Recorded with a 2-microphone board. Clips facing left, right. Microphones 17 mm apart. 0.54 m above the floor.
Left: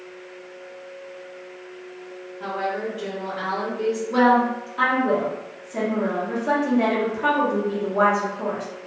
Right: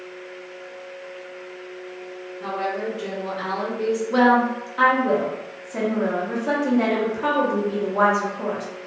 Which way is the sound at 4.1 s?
15° right (ahead or behind).